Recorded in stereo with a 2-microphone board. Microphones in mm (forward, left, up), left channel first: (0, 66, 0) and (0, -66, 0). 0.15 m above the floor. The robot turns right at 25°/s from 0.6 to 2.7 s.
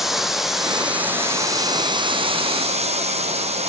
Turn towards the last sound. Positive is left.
turn(degrees=-125)